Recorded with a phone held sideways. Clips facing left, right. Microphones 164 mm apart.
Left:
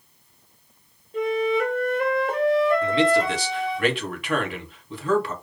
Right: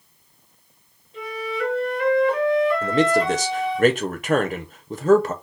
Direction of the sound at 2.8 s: 45° right (ahead or behind).